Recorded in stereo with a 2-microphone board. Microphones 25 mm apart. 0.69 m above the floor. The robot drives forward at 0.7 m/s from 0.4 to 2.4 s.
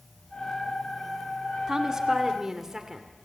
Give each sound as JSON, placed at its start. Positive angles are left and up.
{"t": 1.7, "sound": "a woman speaking", "side_deg": -25, "distance_m": 1.8}